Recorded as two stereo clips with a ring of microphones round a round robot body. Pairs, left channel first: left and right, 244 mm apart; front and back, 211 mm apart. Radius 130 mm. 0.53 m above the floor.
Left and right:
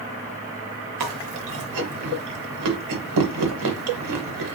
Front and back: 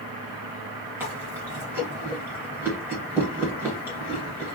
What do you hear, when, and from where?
1.0 s chewing: 100° right, 0.8 m